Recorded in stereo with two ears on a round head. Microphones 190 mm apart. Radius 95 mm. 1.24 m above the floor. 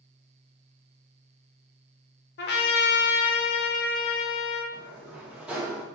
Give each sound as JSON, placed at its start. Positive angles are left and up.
{"t": 2.4, "sound": "a trumpet", "side_deg": 50, "distance_m": 0.7}
{"t": 4.7, "sound": "a sliding door", "side_deg": -5, "distance_m": 1.1}